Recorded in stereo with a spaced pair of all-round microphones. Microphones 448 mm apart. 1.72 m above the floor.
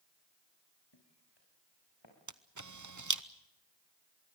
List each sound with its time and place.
0.9 s footsteps: 65° left (ahead or behind), 5.5 m; by 2.1 s 75° left (ahead or behind), 7 m
2.3 s a camera shutter: 45° right (ahead or behind), 0.8 m